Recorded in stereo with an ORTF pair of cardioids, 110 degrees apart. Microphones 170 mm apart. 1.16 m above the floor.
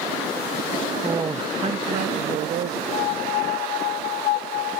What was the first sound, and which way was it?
A man speaking, 15° right.